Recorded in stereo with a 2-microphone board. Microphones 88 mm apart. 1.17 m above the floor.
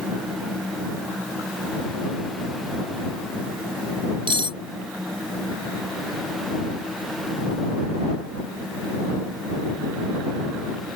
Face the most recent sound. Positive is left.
turn(degrees=-80)